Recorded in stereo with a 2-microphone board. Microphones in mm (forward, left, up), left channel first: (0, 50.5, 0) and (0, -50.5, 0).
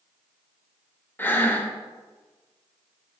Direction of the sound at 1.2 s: 20° left (ahead or behind).